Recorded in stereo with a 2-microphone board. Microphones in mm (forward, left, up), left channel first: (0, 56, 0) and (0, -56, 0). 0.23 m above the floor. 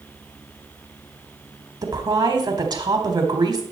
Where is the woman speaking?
40° right (ahead or behind), 1.3 m.